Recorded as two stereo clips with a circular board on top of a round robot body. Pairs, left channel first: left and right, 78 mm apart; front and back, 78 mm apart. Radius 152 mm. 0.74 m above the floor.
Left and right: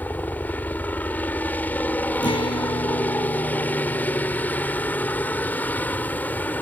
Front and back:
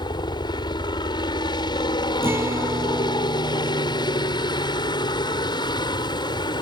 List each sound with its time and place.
0.0 s a helicopter: 20° left
2.2 s a guitar: 120° left